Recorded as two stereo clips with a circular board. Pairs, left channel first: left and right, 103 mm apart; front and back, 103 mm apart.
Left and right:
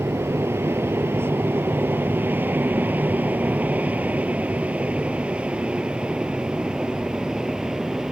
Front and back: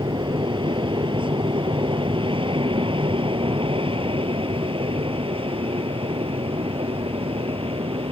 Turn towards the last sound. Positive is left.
turn(degrees=-175)